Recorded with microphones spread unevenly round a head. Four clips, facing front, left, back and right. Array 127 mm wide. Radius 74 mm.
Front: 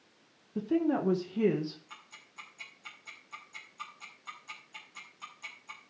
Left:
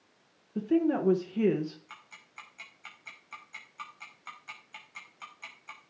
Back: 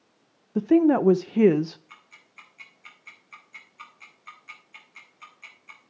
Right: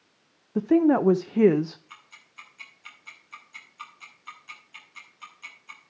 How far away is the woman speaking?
About 0.8 m.